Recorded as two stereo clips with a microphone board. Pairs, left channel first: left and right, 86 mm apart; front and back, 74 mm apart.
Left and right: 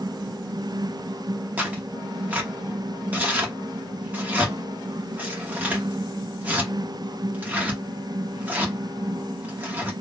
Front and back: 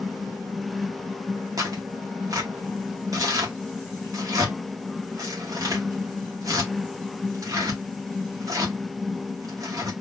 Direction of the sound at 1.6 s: 155° right.